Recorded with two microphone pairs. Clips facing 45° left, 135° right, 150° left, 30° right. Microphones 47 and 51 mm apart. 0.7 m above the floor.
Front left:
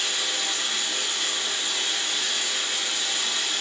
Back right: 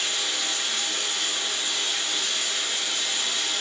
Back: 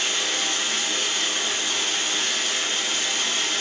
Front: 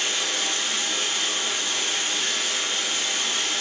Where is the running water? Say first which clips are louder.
Front left 1 dB, back 1 dB; 115° left, 1.4 m.